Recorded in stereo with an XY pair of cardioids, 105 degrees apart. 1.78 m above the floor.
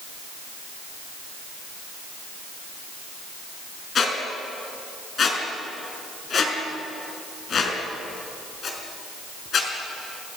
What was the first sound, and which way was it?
A squeak, 50° left.